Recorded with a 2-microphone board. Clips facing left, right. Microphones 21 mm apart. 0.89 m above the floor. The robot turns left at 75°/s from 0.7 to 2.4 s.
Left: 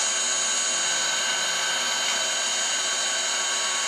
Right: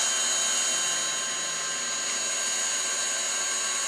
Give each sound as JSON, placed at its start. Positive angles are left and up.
{"t": 0.0, "sound": "an engine running", "azimuth_deg": 160, "distance_m": 2.0}